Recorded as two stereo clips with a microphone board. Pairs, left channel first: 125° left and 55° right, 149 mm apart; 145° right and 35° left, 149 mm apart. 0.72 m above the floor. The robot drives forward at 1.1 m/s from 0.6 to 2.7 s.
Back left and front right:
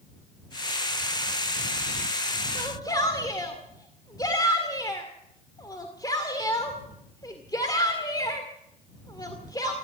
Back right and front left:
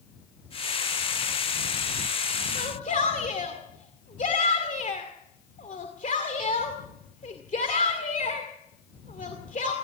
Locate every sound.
2.5 s a shout: 175° right, 1.9 m